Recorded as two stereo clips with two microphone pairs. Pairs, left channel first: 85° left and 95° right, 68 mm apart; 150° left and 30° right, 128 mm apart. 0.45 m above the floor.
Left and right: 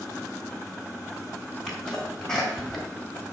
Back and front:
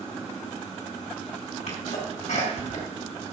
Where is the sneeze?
170° left, 4 m.